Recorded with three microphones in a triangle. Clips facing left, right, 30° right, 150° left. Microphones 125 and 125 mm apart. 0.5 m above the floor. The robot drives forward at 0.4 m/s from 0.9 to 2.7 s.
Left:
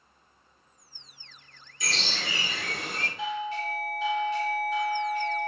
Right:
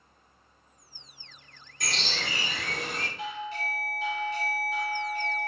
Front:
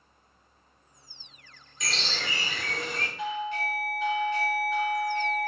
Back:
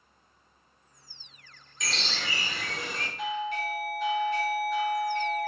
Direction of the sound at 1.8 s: 120° right.